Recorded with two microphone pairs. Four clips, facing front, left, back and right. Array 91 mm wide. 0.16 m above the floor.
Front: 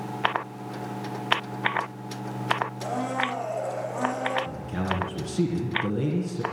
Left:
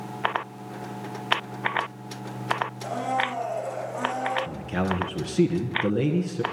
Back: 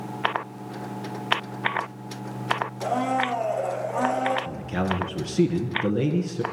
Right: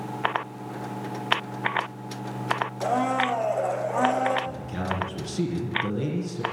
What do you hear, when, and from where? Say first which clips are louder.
2.8 s a blender: right 3 dB, back 4 dB; 115° right, 5.5 m
4.5 s a man speaking: left 3 dB, back 3 dB; 135° left, 2.5 m